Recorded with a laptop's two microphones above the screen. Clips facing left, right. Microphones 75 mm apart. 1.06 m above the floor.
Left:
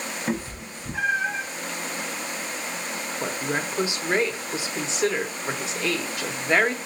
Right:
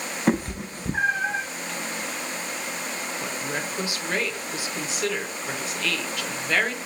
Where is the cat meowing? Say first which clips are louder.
Right 8 dB; 55° right (ahead or behind), 0.5 m; by 1.4 s 25° right (ahead or behind), 0.7 m.